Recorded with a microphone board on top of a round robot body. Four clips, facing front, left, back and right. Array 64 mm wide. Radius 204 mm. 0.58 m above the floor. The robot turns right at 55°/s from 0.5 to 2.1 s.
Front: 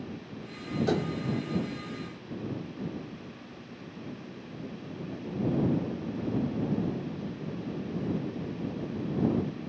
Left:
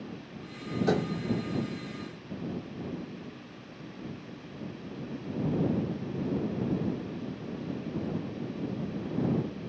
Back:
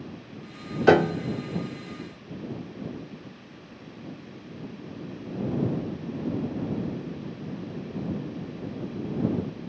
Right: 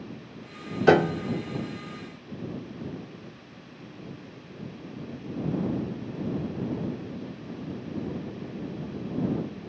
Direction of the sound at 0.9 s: 140° right.